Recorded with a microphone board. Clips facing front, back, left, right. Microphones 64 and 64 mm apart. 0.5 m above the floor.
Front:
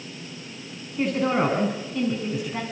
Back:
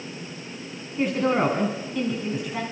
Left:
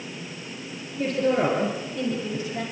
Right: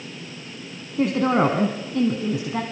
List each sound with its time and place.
1.0 s a woman speaking: 90° right, 4.5 m